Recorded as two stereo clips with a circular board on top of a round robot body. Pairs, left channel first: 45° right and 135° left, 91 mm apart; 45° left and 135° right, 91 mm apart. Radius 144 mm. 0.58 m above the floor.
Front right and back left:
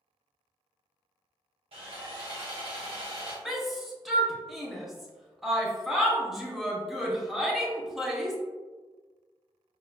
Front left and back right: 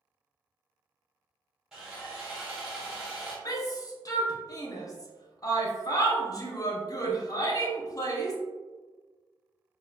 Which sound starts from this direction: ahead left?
A shout, at 3.5 s.